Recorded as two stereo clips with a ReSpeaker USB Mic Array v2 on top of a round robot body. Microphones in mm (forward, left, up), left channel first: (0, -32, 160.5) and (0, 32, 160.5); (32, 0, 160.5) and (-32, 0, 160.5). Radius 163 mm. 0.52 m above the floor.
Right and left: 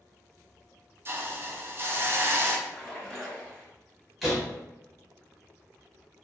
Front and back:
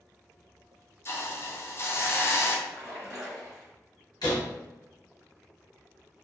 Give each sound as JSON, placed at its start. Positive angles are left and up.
{"t": 1.1, "sound": "a hiss", "azimuth_deg": 45, "distance_m": 0.6}
{"t": 2.7, "sound": "a splash", "azimuth_deg": -15, "distance_m": 1.7}
{"t": 4.2, "sound": "a door slam", "azimuth_deg": 0, "distance_m": 1.4}